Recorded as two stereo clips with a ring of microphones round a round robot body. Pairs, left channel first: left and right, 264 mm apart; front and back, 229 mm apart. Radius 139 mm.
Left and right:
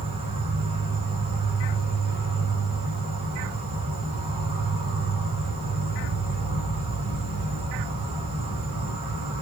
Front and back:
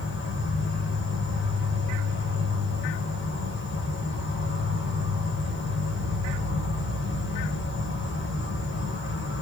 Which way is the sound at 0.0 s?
25° right.